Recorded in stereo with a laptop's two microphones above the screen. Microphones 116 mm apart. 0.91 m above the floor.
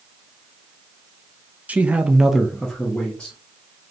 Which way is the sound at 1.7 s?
10° right (ahead or behind).